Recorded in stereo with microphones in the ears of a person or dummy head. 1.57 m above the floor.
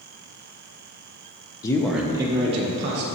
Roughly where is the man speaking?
Left.